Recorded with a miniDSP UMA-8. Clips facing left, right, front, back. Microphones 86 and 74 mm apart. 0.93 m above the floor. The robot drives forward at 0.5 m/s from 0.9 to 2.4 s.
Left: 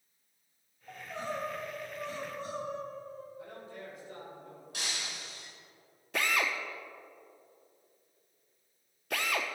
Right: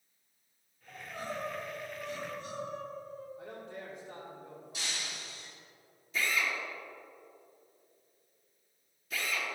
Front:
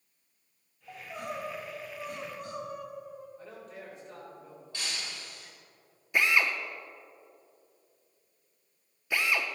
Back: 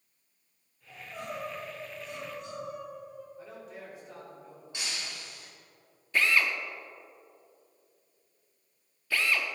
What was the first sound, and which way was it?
Crying, 30° left.